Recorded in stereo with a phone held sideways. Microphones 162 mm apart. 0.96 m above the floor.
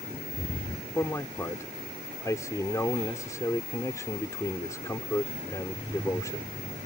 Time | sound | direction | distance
0.9 | a man speaking | 20° left (ahead or behind) | ?